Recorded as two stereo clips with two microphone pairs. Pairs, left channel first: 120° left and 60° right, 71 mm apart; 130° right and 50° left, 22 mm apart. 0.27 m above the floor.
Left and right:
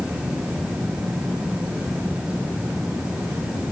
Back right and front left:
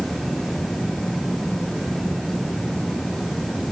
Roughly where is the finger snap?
No finger snap in this recording.